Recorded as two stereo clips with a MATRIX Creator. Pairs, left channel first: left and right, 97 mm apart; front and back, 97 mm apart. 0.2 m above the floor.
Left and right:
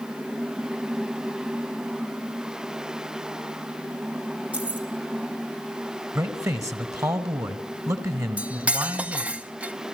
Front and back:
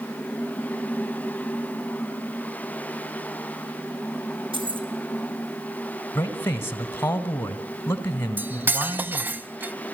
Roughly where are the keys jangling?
Behind.